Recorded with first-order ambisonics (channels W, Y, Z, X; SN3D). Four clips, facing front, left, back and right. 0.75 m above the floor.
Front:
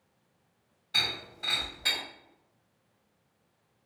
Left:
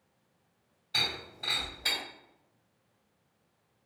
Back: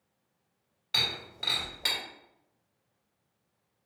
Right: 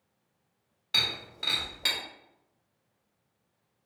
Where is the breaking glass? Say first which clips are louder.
Right 3 dB, even; 125° right, 1.6 m.